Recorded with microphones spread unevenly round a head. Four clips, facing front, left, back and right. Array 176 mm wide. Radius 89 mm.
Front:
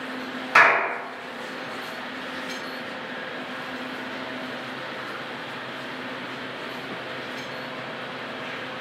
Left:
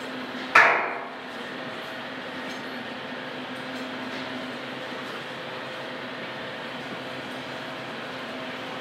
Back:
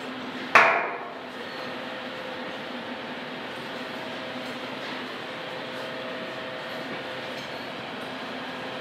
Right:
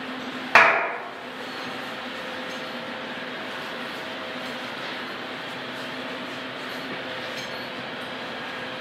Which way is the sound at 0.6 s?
140° right.